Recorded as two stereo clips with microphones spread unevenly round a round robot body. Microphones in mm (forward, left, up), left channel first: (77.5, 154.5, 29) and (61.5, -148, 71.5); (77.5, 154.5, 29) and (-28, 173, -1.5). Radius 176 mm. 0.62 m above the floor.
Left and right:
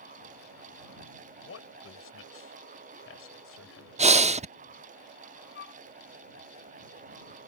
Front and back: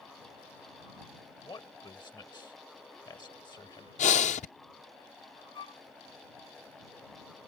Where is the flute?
45° left.